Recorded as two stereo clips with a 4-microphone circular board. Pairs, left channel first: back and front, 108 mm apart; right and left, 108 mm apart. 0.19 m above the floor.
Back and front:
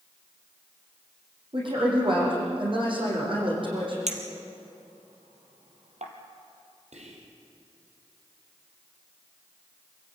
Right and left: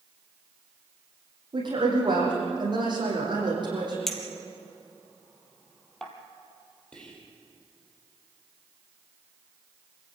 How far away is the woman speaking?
About 8.5 m.